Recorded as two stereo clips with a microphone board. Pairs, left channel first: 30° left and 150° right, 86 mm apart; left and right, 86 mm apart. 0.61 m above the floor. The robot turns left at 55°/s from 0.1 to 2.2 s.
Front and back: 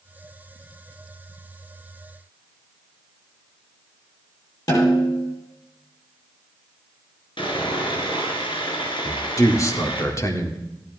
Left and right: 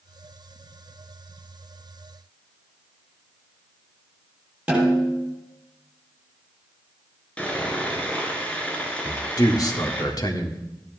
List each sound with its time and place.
4.7 s a snare drum: 15° right, 6 m
7.4 s sawing: 15° left, 3 m
9.1 s a man speaking: 70° left, 1.9 m